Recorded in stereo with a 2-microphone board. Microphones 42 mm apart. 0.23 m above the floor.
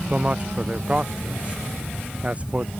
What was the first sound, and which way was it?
A man speaking, 25° right (ahead or behind).